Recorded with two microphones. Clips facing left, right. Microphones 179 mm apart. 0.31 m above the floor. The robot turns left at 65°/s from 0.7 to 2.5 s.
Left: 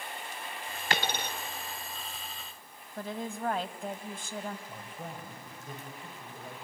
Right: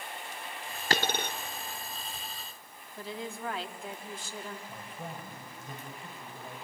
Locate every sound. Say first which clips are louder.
0.9 s a dropped coin: right 2 dB; 40° right (ahead or behind), 1.0 m; by 1.3 s 65° right (ahead or behind), 1.0 m
3.0 s a woman speaking: left 3 dB; 50° left (ahead or behind), 1.6 m
4.7 s a man speaking: even; 25° left (ahead or behind), 8 m